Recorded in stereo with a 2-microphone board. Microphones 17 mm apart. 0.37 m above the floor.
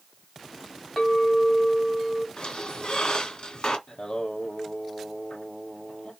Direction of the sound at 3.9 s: 70° left (ahead or behind).